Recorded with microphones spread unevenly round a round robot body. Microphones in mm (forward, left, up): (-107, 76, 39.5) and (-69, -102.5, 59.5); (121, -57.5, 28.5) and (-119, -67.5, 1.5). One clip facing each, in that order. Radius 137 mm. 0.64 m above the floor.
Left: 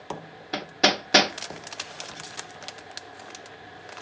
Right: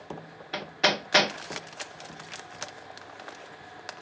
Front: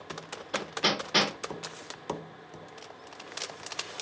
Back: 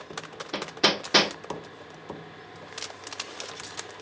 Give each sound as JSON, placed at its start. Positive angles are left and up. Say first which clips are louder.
{"t": 0.5, "sound": "hammering", "louder": "left 3 dB, back 4 dB", "azimuth_deg": 145, "distance_m": 0.9}